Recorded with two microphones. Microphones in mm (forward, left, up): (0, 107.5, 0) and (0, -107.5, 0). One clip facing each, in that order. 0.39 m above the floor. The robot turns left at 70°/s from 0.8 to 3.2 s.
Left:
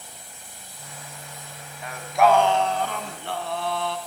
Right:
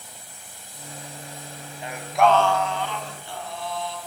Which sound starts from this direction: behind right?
Singing, at 1.8 s.